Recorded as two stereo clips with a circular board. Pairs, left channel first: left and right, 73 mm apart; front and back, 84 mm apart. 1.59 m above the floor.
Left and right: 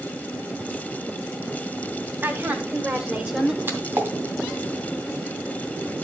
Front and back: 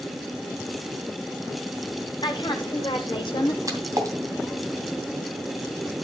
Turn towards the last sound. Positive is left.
turn(degrees=-145)